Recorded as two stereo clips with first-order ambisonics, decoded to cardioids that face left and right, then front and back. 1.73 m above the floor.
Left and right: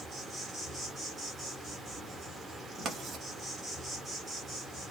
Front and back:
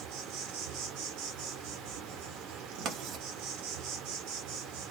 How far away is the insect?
About 0.9 m.